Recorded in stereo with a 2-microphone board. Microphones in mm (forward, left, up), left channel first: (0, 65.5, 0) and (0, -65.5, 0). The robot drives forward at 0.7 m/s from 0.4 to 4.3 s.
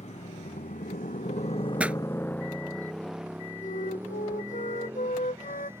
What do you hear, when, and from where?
0.0 s a motorcycle: 60° left (ahead or behind); by 5.8 s 20° right (ahead or behind)
1.8 s a pop: 10° right (ahead or behind)
3.6 s a flute: 75° left (ahead or behind)